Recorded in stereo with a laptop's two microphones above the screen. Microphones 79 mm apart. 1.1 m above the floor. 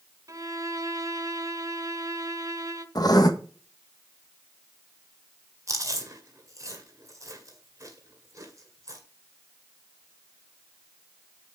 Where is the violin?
45° right (ahead or behind), 1.1 m.